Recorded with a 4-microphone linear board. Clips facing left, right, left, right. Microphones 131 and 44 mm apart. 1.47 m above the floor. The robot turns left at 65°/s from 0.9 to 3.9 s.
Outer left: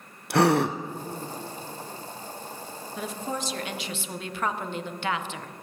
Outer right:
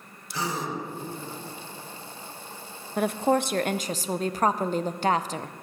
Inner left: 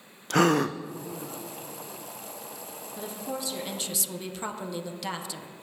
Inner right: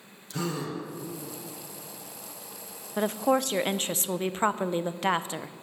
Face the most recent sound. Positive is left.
turn(degrees=-135)